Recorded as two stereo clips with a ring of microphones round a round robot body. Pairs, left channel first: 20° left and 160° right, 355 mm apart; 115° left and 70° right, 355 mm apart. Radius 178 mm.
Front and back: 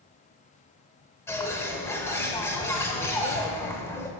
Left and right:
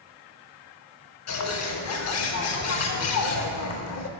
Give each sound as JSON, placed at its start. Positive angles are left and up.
{"t": 1.3, "sound": "a bird", "azimuth_deg": 100, "distance_m": 0.7}